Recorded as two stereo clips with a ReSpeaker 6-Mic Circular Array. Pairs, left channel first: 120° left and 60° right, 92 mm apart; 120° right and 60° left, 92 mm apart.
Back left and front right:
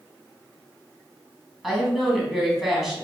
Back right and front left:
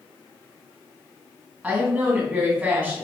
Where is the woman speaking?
20° left, 1.0 m.